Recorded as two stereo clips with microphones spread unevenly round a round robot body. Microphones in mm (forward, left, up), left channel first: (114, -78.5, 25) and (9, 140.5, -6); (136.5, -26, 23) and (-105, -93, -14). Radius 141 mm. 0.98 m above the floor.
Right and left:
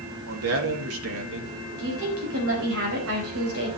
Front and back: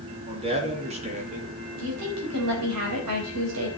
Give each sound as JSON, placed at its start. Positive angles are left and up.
{"t": 0.3, "sound": "a man speaking", "azimuth_deg": 130, "distance_m": 2.0}
{"t": 1.8, "sound": "a woman speaking", "azimuth_deg": 160, "distance_m": 4.5}